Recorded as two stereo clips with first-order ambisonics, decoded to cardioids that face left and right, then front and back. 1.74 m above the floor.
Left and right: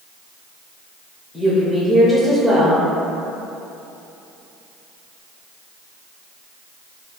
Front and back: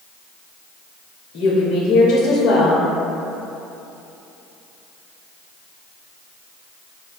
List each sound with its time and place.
1.3 s a woman speaking: straight ahead, 0.8 m